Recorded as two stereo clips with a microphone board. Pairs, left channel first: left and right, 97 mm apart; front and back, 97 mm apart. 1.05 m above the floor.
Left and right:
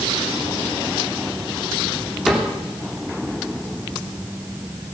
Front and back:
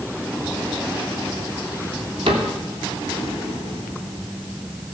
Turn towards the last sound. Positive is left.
turn(degrees=180)